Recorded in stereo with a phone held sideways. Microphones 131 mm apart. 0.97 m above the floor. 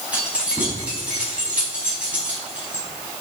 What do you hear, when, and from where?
0.1 s keys jangling: 10° right (ahead or behind), 4.5 m